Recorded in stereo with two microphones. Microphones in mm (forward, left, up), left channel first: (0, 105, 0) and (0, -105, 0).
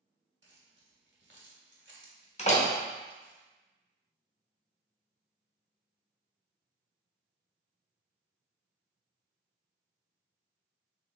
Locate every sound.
0.4 s keys jangling: 60° right (ahead or behind), 0.9 m
2.4 s a door slam: 35° left (ahead or behind), 0.7 m